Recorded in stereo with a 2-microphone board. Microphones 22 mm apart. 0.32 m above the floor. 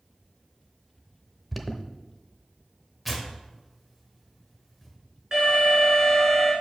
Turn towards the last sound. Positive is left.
turn(degrees=-30)  # may be behind; listen again after turning